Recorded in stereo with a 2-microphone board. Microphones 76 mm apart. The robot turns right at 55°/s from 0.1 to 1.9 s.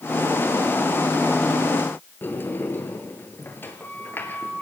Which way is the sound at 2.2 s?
25° left (ahead or behind).